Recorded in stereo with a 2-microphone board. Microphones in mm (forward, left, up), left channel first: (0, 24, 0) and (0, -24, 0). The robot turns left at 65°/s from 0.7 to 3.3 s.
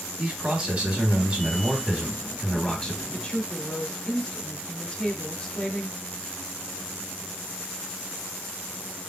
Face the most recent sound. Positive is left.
turn(degrees=20)  # may be behind; listen again after turning